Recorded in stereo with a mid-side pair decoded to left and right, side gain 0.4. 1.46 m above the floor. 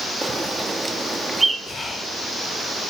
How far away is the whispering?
About 1.4 m.